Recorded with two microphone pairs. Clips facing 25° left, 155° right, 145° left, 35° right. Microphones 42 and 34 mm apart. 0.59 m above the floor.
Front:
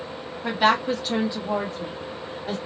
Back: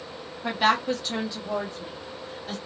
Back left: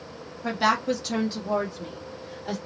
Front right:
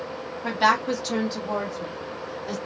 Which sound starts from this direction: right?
A woman speaking, at 0.4 s.